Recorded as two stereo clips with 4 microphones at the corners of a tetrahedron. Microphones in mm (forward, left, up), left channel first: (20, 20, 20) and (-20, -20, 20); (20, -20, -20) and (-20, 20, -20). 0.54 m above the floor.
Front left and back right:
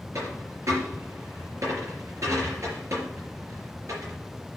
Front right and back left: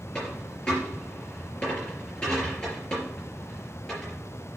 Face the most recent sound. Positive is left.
turn(degrees=-120)